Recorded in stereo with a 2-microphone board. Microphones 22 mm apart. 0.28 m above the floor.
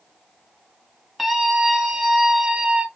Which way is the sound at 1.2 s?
10° right (ahead or behind).